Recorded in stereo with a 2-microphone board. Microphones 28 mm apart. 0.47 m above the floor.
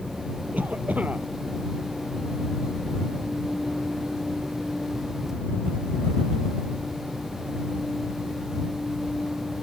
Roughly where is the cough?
Right.